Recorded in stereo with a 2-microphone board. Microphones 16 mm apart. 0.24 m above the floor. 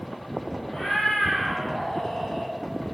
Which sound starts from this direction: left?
A cat meowing, at 0.7 s.